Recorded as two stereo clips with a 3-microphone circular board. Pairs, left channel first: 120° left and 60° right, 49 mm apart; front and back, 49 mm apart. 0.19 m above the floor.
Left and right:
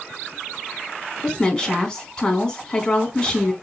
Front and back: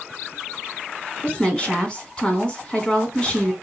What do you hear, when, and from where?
1.2 s a woman speaking: 55° left, 1.5 m